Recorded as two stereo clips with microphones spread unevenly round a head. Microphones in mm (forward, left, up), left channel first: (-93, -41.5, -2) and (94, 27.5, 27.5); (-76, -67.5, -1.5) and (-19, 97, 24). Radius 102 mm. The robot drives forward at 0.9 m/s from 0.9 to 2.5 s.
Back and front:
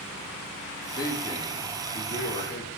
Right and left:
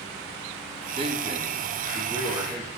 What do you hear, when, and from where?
1.0 s a man speaking: 125° left, 3 m; by 2.7 s 145° left, 4 m